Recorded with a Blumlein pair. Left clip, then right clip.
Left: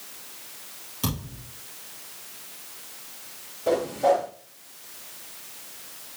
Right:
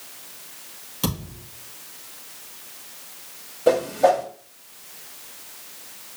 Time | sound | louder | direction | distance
1.0 | a thud | right 3 dB | 10° right | 4.5 m
3.7 | a whoosh | right 4 dB | 25° right | 3 m